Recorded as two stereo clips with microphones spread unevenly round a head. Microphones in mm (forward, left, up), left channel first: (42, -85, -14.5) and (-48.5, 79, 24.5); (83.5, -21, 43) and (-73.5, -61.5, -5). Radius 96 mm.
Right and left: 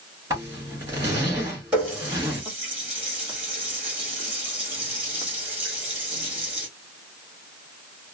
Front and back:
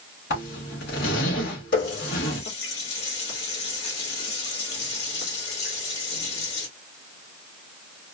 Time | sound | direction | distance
0.3 | a zipper | 45° left | 2 m
1.7 | a running tap | 40° left | 2.0 m